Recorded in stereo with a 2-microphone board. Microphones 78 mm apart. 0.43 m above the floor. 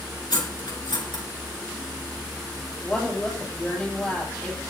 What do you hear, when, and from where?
0.3 s cutlery clinking: 70° left (ahead or behind), 3.5 m
2.8 s a woman speaking: 15° left (ahead or behind), 7.5 m